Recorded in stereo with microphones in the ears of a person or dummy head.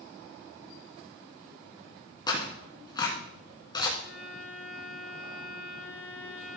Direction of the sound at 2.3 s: 25° left (ahead or behind).